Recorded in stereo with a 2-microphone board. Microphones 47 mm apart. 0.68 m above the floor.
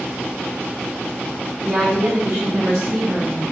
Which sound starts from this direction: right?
A woman speaking, at 1.6 s.